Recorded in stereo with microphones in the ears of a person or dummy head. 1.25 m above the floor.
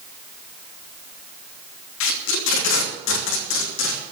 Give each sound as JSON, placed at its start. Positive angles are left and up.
{"t": 2.0, "sound": "tape being pulled", "side_deg": 65, "distance_m": 2.5}